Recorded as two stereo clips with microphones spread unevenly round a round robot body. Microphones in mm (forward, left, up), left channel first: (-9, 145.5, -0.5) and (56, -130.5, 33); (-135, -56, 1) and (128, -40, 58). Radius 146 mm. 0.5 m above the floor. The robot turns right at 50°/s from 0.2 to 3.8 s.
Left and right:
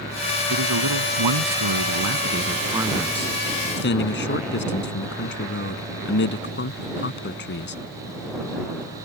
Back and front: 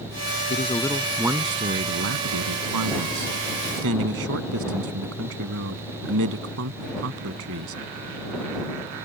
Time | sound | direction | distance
0.5 | a man speaking | 115° right | ?